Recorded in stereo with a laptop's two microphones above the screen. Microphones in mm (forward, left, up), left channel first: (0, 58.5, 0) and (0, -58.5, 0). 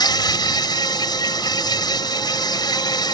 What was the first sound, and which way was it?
An insect, 40° left (ahead or behind).